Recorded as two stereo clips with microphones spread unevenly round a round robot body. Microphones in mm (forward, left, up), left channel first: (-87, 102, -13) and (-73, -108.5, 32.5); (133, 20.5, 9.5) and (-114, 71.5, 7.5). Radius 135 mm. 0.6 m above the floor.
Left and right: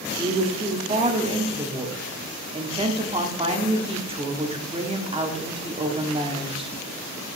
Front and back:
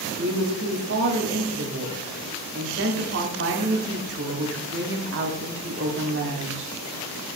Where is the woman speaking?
155° right, 1.4 m.